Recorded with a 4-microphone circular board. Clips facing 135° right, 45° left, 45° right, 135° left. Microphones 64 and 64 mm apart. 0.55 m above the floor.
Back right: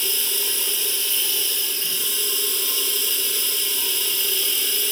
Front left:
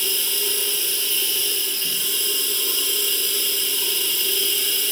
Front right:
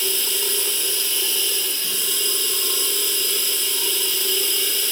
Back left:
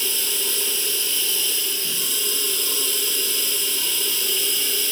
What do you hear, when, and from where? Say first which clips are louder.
0.0 s running water: front left 1 dB, front right 2 dB; 65° right, 0.7 m